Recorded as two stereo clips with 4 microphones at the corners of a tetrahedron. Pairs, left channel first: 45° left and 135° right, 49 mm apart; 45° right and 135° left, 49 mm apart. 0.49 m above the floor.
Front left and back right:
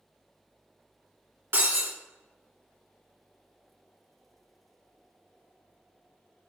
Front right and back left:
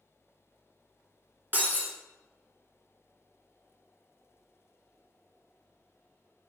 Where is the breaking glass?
175° right, 2 m.